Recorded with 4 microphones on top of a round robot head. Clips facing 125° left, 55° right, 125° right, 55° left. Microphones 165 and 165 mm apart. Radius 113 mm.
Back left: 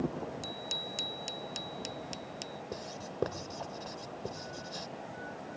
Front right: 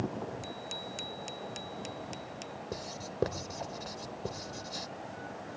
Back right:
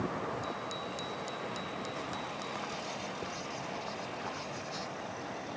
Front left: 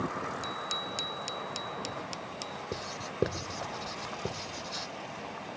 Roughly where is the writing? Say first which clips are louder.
Front right 2 dB, front left 1 dB; ahead left.